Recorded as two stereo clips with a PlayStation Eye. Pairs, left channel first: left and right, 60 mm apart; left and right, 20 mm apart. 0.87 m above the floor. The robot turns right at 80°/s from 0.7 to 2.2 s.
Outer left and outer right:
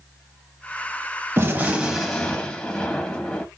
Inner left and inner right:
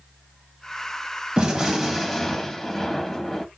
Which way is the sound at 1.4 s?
45° right.